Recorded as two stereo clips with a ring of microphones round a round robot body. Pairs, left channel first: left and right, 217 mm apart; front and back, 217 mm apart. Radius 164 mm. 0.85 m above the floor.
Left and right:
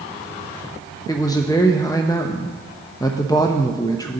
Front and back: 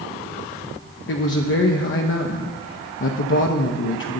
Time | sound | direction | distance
1.1 | a man speaking | 15° left | 0.6 m